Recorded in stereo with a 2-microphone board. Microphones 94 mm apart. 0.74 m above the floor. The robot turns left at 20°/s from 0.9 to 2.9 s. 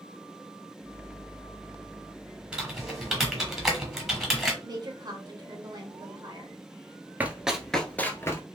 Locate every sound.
2.5 s typing on a keyboard: 10° right (ahead or behind), 1.2 m; by 4.5 s centre (ahead or behind), 1.2 m
4.6 s a woman speaking: 45° right (ahead or behind), 1.1 m
7.2 s running footsteps: 20° right (ahead or behind), 0.7 m; by 8.4 s 30° left (ahead or behind), 0.8 m